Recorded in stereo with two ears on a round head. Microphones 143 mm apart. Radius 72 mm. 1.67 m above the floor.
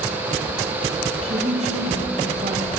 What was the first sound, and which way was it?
A woman speaking, 40° right (ahead or behind).